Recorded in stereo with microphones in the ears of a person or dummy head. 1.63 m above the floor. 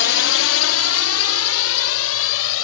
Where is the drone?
60° left (ahead or behind); by 2.7 s 75° left (ahead or behind).